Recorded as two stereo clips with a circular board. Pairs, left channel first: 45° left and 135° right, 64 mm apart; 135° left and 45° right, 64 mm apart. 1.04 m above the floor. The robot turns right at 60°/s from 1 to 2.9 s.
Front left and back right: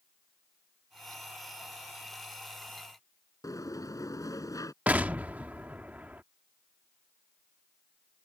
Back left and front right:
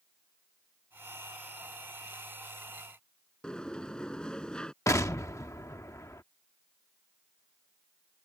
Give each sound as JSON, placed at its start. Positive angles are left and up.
{"t": 3.4, "sound": "a sliding door", "azimuth_deg": 60}
{"t": 4.9, "sound": "an explosion", "azimuth_deg": 160}